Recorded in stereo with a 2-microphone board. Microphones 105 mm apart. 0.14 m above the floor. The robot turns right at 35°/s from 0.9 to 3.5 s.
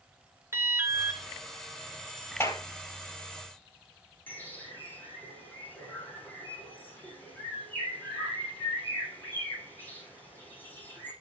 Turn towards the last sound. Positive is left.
turn(degrees=15)  # may be behind; listen again after turning